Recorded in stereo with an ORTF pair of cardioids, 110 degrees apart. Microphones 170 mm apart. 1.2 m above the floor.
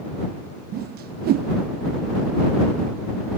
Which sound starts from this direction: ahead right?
A whoosh, at 0.7 s.